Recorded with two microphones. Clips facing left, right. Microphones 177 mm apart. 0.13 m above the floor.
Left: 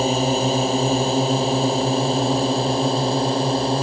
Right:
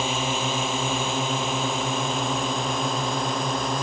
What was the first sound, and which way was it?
A drone, 40° left (ahead or behind).